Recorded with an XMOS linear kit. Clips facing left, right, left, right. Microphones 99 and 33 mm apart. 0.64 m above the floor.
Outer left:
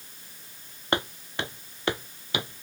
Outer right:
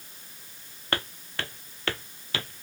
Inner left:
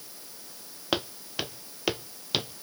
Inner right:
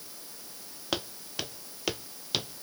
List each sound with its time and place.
0.9 s footsteps: 20° left (ahead or behind); by 2.6 s 15° left (ahead or behind)